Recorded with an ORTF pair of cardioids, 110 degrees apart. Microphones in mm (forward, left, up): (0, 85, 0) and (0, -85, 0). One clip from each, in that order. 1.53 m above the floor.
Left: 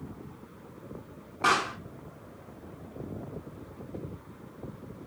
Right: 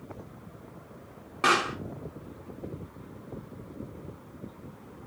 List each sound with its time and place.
1.4 s a pop: 40° right, 2.5 m